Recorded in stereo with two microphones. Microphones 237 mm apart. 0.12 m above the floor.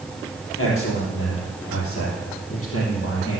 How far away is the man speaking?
About 3.5 m.